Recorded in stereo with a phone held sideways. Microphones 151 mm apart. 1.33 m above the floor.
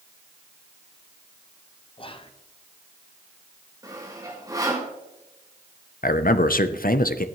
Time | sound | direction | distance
2.0 | whispering | 35° left (ahead or behind) | 1.1 m
3.8 | sawing | 25° right (ahead or behind) | 4 m
6.0 | a man speaking | 70° left (ahead or behind) | 0.7 m